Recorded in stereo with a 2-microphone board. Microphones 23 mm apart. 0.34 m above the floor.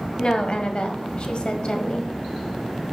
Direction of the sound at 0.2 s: 40° left (ahead or behind).